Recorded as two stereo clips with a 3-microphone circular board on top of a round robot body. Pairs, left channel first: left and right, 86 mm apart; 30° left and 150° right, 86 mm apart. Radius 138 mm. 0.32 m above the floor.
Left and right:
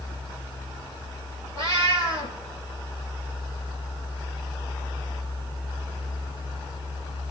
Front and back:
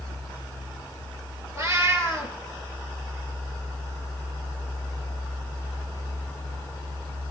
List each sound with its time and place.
1.6 s a cat meowing: 95° right, 4.5 m